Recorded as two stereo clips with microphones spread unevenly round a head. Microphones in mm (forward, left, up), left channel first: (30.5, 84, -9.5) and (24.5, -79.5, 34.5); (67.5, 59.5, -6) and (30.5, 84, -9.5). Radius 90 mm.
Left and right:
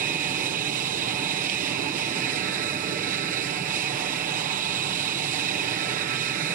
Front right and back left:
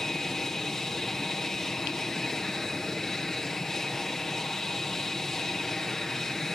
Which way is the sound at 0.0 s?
110° right.